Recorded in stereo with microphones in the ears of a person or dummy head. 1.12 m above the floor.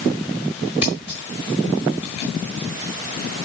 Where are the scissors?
Centre (ahead or behind), 1.7 m.